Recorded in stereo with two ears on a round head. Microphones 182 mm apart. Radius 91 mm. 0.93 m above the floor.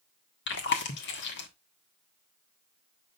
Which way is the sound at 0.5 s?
60° left (ahead or behind).